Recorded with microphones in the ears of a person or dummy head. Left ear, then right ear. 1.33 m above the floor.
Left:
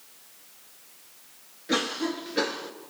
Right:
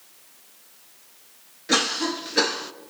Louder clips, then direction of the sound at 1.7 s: Right 5 dB; 25° right (ahead or behind).